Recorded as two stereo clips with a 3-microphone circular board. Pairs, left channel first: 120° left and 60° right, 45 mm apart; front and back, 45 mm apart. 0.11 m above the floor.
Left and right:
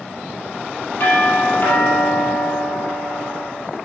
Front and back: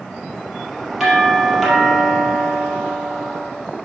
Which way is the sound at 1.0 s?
100° left.